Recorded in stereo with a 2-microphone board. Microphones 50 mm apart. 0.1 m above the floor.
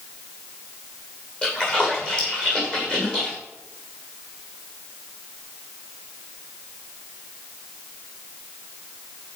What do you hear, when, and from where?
1.4 s a splash: 20° left (ahead or behind), 6.5 m